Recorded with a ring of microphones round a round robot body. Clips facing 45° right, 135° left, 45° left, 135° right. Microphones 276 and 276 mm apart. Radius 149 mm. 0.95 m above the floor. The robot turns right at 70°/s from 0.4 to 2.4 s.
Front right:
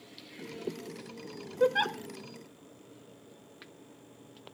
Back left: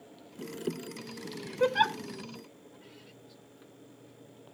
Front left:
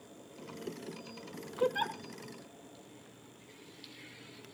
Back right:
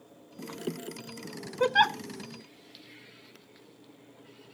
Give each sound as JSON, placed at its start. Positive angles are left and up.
{"t": 1.6, "sound": "a giggle", "azimuth_deg": -145, "distance_m": 0.6}